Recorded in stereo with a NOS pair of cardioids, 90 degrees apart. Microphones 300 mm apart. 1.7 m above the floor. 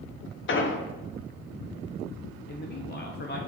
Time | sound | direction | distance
0.5 | an explosion | 45° left | 1.1 m
2.5 | a man speaking | 35° left | 1.1 m